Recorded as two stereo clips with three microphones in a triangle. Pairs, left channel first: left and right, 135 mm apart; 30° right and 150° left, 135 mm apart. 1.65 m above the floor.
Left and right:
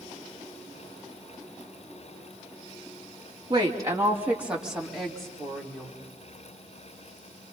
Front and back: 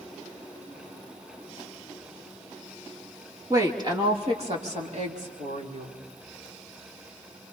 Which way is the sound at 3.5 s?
145° right.